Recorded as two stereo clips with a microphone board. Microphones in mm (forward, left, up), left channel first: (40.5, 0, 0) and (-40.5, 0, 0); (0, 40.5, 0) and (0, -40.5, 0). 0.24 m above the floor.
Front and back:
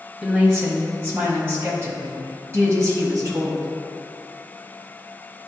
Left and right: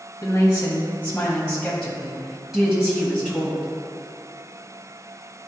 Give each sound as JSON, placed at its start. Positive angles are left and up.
{"t": 0.2, "sound": "a woman speaking", "azimuth_deg": 100, "distance_m": 1.6}